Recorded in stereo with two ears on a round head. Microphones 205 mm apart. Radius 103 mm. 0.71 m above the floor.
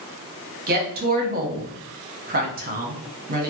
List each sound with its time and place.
0.7 s a woman speaking: 40° right (ahead or behind), 0.8 m